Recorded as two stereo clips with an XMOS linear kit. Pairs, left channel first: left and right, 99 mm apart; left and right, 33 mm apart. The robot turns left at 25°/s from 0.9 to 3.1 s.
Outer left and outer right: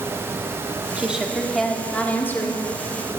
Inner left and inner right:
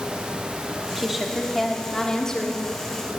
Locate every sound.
1.0 s a woman speaking: 170° right, 1.7 m; by 2.7 s 150° left, 1.7 m